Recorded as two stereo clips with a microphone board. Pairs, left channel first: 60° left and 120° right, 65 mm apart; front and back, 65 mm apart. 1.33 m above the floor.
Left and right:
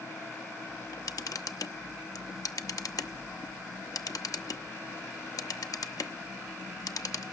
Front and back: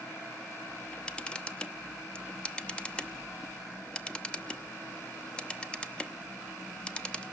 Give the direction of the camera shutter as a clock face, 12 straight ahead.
10 o'clock.